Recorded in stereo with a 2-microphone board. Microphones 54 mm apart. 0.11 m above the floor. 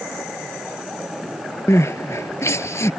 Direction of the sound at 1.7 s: 50° left (ahead or behind).